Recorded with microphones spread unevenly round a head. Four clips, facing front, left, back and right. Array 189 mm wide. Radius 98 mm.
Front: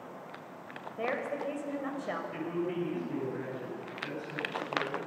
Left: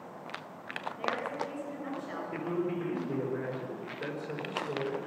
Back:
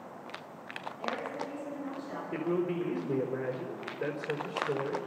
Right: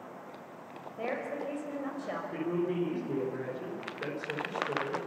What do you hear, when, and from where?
1.0 s a woman speaking: 20° right, 5.5 m
2.3 s a man speaking: 170° right, 4.5 m